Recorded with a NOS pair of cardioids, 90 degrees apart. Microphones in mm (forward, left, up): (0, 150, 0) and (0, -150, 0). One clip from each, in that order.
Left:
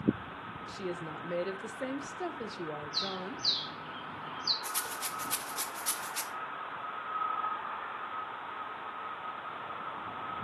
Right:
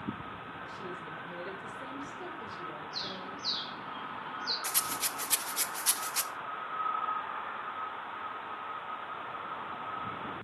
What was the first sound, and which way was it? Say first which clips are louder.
A woman speaking: left 5 dB; 60° left.